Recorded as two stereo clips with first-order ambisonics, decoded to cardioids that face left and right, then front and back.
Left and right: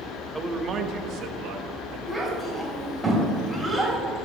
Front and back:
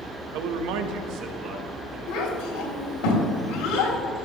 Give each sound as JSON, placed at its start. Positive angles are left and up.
{"t": 0.3, "sound": "a man speaking", "azimuth_deg": 175, "distance_m": 0.8}
{"t": 2.1, "sound": "a child speaking", "azimuth_deg": 0, "distance_m": 2.5}